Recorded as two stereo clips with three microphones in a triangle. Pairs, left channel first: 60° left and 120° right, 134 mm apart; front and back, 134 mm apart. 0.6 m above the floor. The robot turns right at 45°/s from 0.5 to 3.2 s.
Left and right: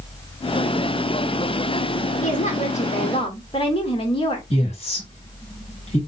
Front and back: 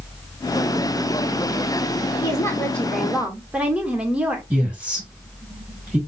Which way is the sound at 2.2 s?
55° left.